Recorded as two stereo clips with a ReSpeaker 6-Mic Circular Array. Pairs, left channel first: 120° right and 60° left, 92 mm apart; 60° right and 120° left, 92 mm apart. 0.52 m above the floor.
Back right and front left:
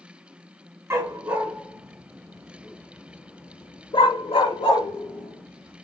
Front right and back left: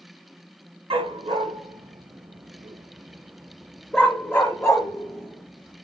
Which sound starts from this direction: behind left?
A dog barking, at 0.9 s.